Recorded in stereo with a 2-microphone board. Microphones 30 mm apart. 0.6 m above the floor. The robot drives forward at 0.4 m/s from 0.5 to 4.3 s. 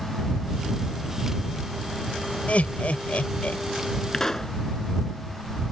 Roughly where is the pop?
Centre.